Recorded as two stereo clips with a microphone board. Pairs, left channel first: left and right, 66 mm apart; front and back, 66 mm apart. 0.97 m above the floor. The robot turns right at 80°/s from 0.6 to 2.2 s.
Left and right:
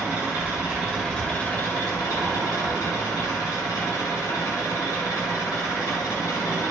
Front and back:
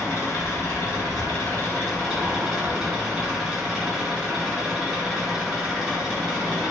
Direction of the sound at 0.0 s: 35° right.